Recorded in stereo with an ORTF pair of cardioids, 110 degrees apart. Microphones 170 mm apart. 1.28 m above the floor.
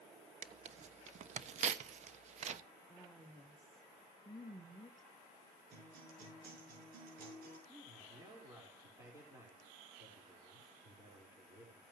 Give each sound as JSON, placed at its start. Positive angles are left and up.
{"t": 0.4, "sound": "tearing paper", "azimuth_deg": -45, "distance_m": 1.0}
{"t": 2.9, "sound": "a woman speaking", "azimuth_deg": 5, "distance_m": 1.4}
{"t": 5.7, "sound": "a guitar", "azimuth_deg": -65, "distance_m": 6.5}
{"t": 7.7, "sound": "a man speaking", "azimuth_deg": -20, "distance_m": 4.5}